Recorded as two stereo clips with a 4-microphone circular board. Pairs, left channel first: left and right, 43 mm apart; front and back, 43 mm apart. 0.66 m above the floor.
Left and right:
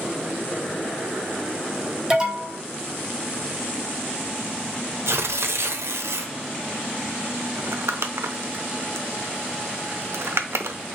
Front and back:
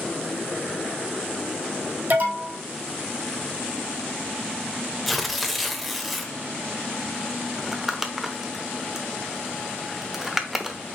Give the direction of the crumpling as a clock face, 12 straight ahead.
3 o'clock.